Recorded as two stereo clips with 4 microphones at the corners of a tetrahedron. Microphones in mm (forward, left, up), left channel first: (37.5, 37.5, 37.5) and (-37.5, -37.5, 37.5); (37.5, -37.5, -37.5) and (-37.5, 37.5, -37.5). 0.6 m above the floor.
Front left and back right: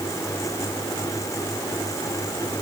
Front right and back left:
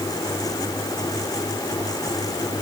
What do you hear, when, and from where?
Only background noise.